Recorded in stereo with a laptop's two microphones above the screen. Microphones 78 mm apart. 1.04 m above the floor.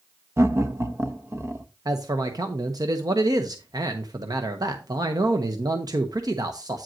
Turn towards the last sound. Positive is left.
turn(degrees=-55)  # may be behind; listen again after turning